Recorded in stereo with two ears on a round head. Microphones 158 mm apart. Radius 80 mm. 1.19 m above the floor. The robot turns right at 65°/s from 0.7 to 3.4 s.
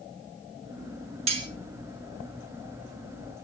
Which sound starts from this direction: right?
Cutlery clinking, at 1.3 s.